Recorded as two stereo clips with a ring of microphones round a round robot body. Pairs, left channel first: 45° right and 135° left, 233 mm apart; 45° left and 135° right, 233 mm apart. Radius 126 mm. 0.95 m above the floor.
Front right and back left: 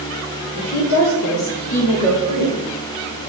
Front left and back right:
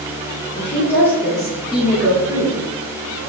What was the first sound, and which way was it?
A woman speaking, 30° right.